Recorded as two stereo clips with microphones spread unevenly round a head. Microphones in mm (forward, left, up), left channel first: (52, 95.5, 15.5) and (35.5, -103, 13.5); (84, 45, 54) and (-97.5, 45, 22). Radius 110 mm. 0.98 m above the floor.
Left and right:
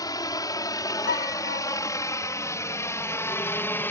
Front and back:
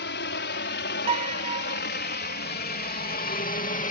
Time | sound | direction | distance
0.0 | a helicopter | 15° left | ?
1.1 | a piano | 120° left | ?